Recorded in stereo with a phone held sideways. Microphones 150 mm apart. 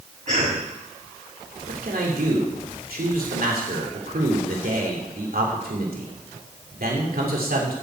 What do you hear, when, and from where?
0.3 s a cough: 55° right (ahead or behind), 7.5 m
1.7 s a man speaking: 80° right, 2.5 m